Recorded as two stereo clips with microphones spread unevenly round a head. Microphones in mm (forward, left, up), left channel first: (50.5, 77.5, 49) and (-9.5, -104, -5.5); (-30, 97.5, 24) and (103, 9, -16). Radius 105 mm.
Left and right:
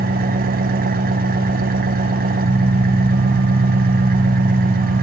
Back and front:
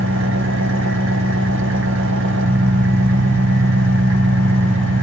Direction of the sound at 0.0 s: 60° right.